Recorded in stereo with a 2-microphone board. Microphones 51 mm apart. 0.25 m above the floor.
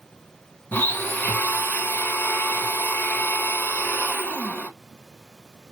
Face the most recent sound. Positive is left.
turn(degrees=40)  # may be behind; listen again after turning